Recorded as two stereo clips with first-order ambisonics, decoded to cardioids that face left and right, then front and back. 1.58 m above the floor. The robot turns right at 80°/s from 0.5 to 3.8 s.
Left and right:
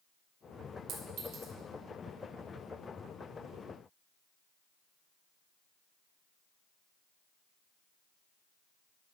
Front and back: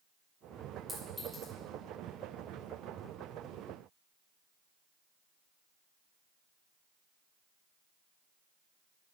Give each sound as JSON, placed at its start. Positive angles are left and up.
{"t": 0.9, "sound": "a clink", "azimuth_deg": -105, "distance_m": 2.5}